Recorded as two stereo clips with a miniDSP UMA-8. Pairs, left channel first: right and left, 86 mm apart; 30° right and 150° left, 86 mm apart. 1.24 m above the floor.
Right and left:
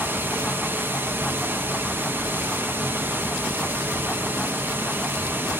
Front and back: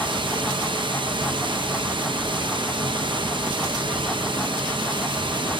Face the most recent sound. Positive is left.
turn(degrees=155)